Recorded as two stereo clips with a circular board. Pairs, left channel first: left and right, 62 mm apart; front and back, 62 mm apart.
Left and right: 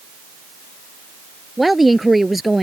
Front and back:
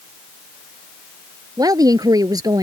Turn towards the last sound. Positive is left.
turn(degrees=180)